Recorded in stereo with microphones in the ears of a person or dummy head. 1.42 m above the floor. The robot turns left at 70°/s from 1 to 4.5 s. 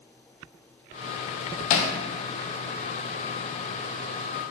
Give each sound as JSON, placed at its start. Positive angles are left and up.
{"t": 1.7, "sound": "hammering", "side_deg": 45, "distance_m": 0.6}